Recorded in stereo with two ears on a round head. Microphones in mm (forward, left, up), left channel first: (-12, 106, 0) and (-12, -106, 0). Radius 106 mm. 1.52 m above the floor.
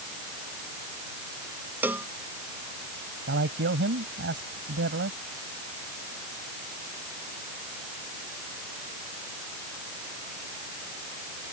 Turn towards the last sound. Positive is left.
turn(degrees=-50)  # may be behind; listen again after turning